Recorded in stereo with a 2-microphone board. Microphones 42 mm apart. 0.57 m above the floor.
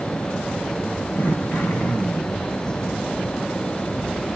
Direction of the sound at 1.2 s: 50° left (ahead or behind).